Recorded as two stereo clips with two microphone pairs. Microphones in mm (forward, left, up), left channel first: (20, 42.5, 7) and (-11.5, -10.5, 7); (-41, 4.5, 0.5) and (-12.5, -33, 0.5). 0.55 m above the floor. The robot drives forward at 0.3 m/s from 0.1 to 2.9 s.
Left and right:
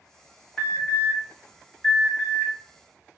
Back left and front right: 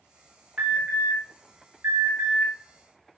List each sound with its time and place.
0.6 s an alarm: 15° right, 1.4 m; by 2.5 s 25° right, 0.9 m